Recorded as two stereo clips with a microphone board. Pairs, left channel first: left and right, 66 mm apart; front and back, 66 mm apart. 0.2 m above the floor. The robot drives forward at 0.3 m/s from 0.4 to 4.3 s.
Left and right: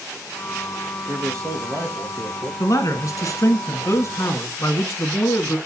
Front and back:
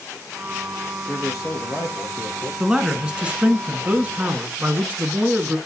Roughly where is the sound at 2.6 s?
Left.